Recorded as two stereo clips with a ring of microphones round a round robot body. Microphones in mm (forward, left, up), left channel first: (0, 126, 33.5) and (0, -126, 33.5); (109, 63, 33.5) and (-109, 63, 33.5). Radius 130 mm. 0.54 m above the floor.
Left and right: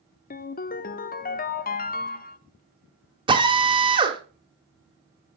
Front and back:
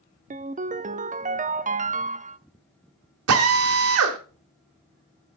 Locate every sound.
0.3 s a ringtone: 135° left, 0.6 m
3.3 s a drill: 160° right, 1.6 m